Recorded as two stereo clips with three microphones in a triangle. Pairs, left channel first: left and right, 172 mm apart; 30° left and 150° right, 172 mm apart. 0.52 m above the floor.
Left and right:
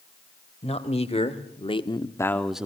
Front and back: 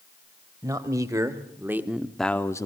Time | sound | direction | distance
0.6 | a man speaking | 140° left | 1.8 m